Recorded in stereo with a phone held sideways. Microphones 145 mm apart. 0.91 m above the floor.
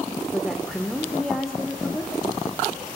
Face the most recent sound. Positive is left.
turn(degrees=0)  # may be behind; listen again after turning